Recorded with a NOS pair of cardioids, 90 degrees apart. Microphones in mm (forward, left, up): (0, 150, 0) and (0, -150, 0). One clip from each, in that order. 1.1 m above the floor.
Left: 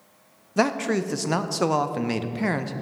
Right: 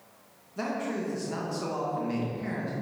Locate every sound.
0.6 s a man speaking: 70° left, 0.6 m